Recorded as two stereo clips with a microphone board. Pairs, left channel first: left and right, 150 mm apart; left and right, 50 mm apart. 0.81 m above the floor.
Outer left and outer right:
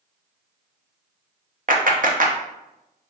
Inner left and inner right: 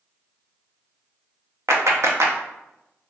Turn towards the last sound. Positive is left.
turn(degrees=-65)  # may be behind; listen again after turning